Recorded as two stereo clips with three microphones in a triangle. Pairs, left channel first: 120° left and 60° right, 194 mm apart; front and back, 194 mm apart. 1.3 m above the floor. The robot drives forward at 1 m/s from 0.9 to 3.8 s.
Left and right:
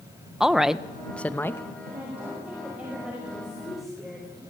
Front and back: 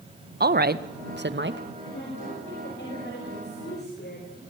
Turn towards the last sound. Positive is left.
turn(degrees=30)